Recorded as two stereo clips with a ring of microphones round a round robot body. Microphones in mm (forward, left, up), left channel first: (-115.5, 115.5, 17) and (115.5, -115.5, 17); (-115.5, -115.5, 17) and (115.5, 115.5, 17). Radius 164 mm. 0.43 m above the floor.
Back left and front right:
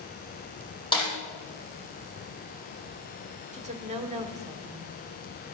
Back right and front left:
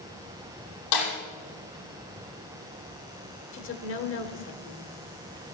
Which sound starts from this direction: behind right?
A snare drum, at 0.9 s.